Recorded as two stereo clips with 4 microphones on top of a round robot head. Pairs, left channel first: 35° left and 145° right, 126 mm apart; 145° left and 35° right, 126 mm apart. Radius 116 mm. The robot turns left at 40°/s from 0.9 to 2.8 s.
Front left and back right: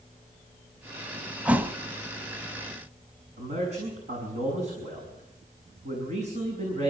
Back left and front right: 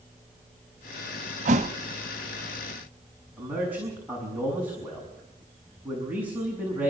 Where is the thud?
65° right, 0.9 m; by 1.8 s 75° right, 0.9 m.